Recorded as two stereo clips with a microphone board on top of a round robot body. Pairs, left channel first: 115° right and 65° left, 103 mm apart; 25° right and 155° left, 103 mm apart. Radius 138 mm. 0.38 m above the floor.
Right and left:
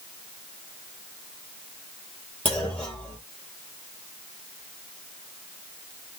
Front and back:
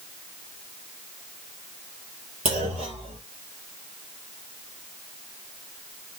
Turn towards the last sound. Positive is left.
turn(degrees=170)